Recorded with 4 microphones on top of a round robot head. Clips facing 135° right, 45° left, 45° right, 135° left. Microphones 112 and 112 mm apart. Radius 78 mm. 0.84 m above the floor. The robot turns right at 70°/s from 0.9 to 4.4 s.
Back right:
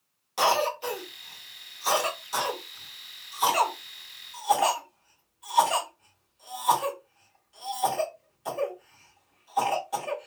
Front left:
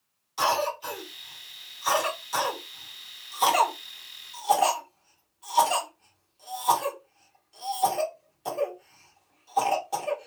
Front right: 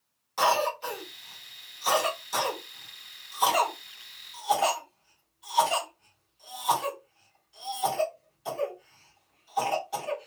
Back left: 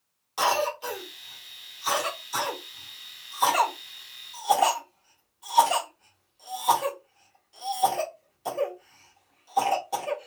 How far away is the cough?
About 1.4 m.